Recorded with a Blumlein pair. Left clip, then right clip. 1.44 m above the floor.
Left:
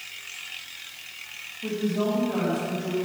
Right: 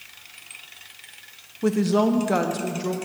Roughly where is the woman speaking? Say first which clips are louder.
Right 6 dB; ahead right.